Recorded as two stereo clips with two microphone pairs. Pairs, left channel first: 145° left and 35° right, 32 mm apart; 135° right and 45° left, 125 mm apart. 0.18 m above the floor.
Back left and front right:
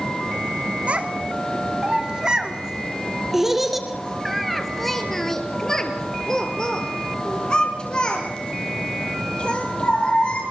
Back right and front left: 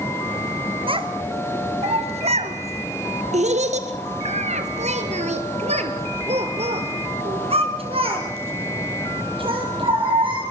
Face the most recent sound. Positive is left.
turn(degrees=95)